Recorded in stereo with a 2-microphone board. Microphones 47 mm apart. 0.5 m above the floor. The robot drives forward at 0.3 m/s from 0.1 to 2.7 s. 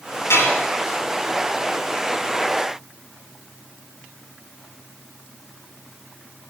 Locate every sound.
0.3 s dishes clattering: 80° left, 8.5 m